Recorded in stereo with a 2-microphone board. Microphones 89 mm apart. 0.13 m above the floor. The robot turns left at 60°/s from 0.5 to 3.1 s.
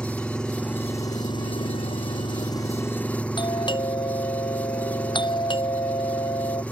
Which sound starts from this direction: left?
A doorbell, at 3.4 s.